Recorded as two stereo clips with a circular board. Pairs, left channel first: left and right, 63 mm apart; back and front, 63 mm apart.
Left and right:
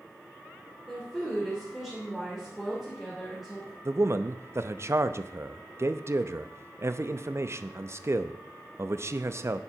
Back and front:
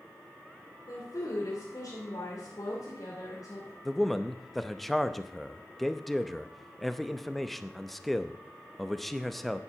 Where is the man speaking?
95° right, 0.6 m.